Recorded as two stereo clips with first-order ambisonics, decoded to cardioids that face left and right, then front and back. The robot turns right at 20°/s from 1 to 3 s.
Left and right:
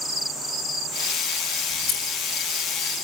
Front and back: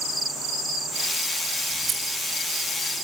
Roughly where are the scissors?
Left.